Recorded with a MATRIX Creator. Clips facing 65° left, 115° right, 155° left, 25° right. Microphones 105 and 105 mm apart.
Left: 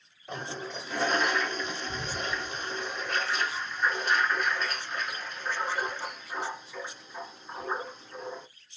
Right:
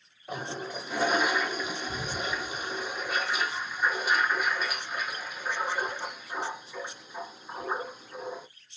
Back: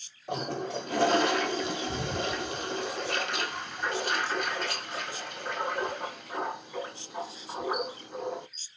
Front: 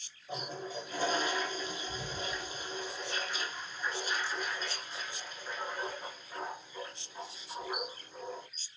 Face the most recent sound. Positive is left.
turn(degrees=165)